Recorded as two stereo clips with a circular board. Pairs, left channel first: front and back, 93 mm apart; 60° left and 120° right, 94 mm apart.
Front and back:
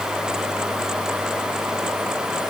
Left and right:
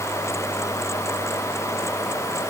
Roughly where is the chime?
No chime in this recording.